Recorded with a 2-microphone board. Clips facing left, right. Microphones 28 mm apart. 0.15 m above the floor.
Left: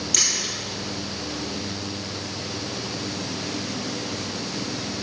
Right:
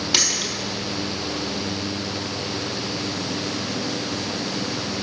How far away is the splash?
About 1.8 m.